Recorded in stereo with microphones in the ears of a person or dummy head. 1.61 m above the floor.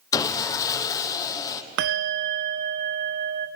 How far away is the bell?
About 0.5 m.